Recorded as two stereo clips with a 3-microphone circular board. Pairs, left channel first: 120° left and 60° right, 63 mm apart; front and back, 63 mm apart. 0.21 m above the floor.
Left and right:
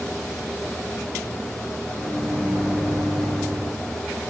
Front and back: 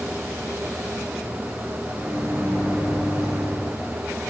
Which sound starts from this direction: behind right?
A microwave, at 1.9 s.